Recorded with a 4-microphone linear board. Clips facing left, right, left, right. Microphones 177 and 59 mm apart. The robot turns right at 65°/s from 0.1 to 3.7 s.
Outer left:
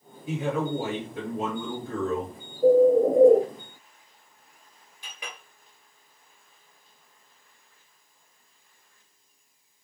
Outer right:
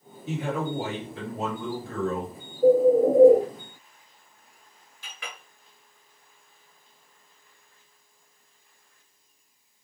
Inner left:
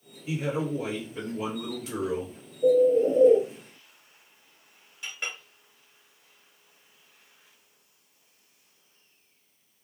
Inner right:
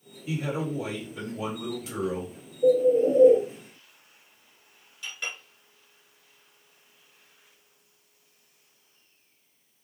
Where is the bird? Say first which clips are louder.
Even, even; 175° left, 1.2 m; by 3.4 s 135° right, 1.2 m.